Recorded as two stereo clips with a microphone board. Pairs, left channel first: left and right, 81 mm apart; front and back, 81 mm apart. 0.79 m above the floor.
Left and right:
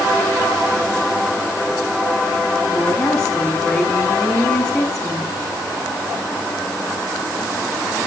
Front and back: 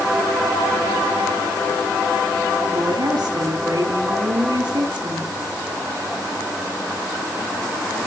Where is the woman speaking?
170° left, 9 m.